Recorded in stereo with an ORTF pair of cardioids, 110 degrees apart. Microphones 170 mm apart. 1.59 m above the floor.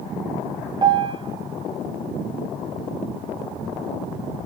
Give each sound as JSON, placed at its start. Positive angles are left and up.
{"t": 0.8, "sound": "a piano", "azimuth_deg": -25, "distance_m": 2.5}